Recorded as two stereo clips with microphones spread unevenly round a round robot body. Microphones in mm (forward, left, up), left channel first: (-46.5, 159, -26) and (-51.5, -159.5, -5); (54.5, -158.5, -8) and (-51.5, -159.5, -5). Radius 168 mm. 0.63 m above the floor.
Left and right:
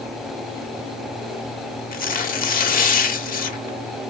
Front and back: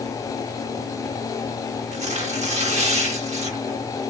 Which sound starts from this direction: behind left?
Tearing paper, at 1.9 s.